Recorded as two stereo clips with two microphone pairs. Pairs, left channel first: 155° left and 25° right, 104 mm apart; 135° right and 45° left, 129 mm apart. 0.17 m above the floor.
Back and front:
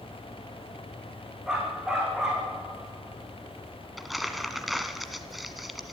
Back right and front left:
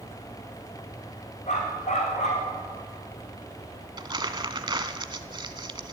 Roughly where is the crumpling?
Ahead left.